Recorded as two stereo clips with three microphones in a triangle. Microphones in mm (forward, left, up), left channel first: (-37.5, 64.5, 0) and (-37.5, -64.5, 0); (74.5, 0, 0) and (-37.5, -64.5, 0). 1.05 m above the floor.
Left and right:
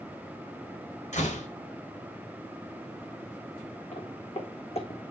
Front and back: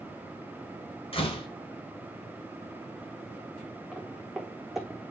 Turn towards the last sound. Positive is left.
turn(degrees=120)